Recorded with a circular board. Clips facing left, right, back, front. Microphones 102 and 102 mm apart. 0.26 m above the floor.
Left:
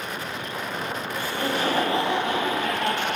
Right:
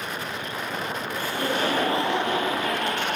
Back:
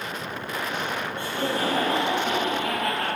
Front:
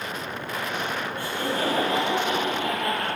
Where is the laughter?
120° right, 2.5 m; by 3.1 s 140° right, 4 m.